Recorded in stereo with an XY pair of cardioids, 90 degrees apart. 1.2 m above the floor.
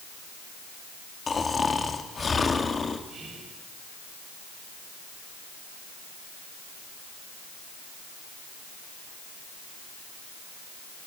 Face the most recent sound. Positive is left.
turn(degrees=-65)